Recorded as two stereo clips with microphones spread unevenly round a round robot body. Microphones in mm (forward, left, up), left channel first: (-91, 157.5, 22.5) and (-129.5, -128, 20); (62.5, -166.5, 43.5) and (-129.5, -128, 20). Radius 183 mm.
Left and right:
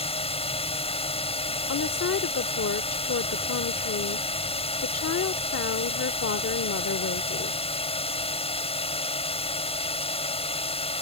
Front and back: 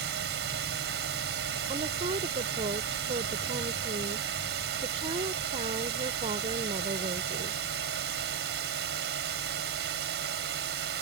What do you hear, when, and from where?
0.0 s a drone: 150° left
1.7 s a woman speaking: 110° left